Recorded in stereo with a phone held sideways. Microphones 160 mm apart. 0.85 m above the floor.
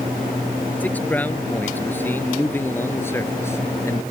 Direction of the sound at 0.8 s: 10° left (ahead or behind).